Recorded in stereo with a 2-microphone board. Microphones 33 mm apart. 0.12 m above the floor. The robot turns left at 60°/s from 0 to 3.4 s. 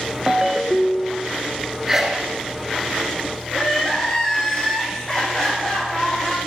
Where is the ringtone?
145° right, 0.6 m; by 1.3 s 155° left, 0.6 m.